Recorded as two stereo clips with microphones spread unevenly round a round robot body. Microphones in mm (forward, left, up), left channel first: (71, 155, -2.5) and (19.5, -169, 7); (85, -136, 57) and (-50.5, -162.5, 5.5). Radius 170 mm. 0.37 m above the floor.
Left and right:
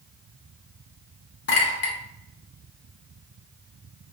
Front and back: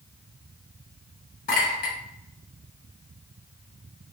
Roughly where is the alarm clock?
No alarm clock in this recording.